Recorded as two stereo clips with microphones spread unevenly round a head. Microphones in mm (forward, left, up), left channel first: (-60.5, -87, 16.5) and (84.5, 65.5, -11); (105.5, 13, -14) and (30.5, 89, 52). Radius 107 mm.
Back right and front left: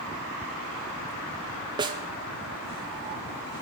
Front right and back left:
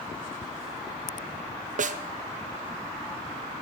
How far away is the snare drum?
About 0.7 m.